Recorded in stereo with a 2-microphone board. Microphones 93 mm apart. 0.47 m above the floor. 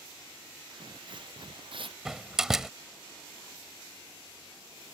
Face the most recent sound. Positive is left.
turn(degrees=-5)  # may be behind; listen again after turning